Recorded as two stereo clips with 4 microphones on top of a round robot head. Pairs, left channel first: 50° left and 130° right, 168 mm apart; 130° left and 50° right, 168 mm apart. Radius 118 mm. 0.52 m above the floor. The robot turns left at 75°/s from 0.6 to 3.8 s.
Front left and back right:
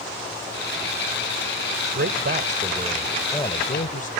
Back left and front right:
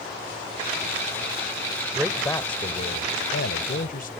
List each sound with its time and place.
1.9 s a man speaking: 130° right; by 4.1 s 90° left